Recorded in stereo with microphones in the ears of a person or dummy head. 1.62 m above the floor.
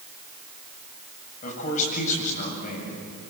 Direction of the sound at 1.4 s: 40° left (ahead or behind).